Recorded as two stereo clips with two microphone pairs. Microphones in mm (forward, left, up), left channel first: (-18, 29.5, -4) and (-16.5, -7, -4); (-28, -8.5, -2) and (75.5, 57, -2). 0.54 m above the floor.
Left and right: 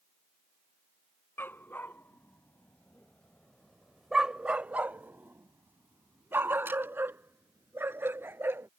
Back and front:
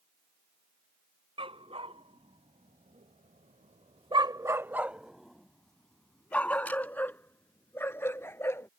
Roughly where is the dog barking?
Left.